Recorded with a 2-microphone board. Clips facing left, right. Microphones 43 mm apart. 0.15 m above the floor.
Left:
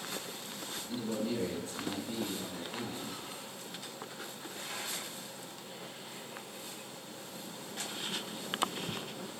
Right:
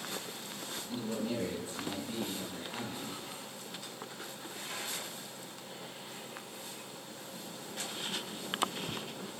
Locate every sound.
0.9 s a man speaking: 25° right (ahead or behind), 3 m